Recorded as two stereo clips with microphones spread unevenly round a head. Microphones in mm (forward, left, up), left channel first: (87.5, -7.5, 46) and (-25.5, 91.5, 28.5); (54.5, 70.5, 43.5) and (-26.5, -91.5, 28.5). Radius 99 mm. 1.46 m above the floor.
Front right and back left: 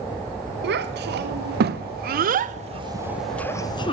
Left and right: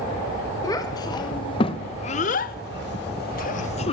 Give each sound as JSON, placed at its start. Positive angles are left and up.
{"t": 0.6, "sound": "a child speaking", "azimuth_deg": 135, "distance_m": 1.5}